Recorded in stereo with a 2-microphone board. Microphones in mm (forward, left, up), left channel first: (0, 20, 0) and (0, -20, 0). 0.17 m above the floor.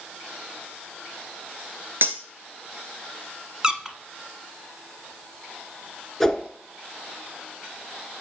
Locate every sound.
2.0 s cutlery clinking: 65° right (ahead or behind), 1.5 m
3.6 s a squeak: 15° right (ahead or behind), 0.8 m
6.2 s a whoosh: 5° left (ahead or behind), 0.9 m